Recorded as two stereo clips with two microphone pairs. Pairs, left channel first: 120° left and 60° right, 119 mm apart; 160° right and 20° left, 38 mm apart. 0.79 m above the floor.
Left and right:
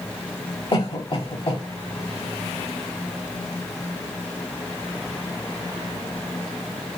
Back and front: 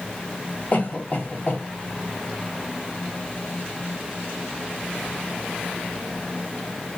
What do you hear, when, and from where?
0.7 s a cough: 155° left, 1.6 m